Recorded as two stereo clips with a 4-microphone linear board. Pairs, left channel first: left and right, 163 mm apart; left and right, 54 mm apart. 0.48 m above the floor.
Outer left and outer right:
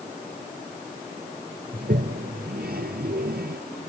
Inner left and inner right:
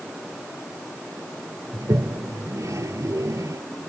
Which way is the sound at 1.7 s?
80° right.